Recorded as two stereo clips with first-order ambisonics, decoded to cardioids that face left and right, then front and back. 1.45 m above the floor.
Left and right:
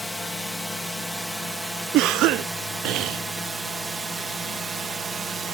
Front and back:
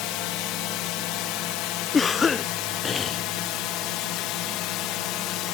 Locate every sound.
0.0 s a drone: 5° left; by 5.5 s 20° right
1.9 s a cough: 70° right